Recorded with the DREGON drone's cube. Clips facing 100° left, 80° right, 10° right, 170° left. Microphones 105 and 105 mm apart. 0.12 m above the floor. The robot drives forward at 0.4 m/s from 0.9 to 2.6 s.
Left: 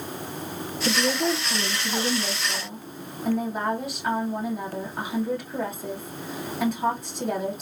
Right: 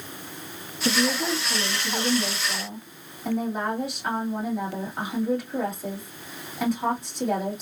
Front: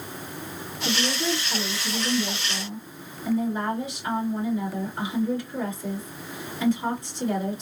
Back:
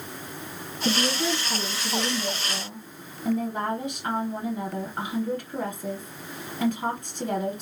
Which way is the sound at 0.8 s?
160° right.